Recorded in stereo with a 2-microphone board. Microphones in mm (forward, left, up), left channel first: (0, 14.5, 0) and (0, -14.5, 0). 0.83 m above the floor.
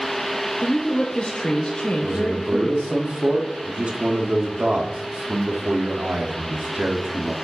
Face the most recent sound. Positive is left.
turn(degrees=-40)  # may be behind; listen again after turning